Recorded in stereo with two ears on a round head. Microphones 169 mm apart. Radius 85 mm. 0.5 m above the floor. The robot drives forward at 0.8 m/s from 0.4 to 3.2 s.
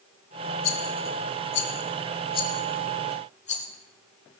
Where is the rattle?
85° left, 1.7 m; by 3.7 s 40° left (ahead or behind), 2.5 m.